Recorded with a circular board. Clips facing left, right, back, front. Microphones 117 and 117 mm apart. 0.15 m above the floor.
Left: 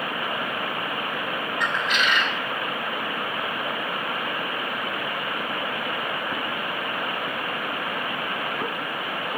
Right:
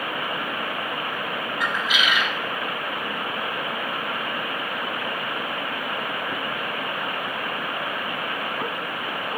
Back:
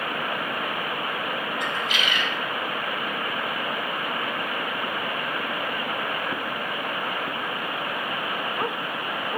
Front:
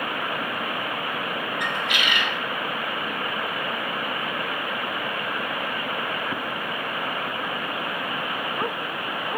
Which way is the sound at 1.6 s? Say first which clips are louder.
Even, front 1 dB; 5° right.